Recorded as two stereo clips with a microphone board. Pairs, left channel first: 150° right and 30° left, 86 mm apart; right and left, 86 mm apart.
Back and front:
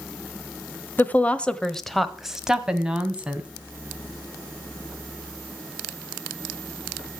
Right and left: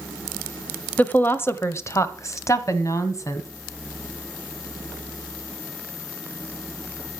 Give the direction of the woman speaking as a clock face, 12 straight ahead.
4 o'clock.